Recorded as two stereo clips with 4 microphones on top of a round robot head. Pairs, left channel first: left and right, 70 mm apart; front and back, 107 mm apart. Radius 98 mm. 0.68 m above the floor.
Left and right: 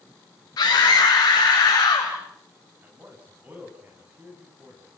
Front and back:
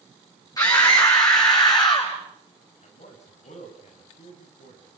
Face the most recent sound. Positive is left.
turn(degrees=-20)